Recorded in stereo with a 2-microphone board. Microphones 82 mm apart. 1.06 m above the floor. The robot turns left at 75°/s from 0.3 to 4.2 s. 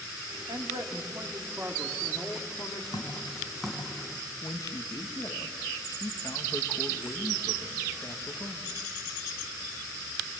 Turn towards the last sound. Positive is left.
turn(degrees=50)  # may be behind; listen again after turning